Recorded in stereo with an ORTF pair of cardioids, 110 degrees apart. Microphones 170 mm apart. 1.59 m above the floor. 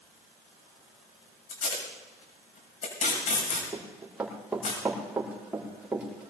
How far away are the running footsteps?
About 7 m.